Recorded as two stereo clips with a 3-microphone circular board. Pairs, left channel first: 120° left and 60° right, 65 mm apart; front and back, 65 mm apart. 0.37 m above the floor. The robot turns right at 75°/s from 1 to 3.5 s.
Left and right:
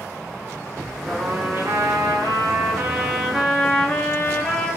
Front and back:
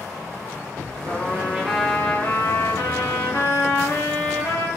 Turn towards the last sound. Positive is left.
turn(degrees=40)